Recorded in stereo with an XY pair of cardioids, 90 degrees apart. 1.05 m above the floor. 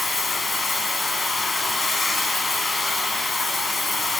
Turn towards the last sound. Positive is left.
turn(degrees=35)